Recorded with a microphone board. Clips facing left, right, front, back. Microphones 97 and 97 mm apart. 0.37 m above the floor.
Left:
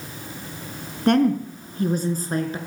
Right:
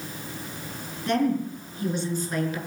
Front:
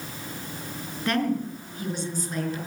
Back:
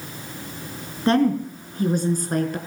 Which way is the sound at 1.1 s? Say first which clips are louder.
Left 5 dB, back 7 dB; 120° left.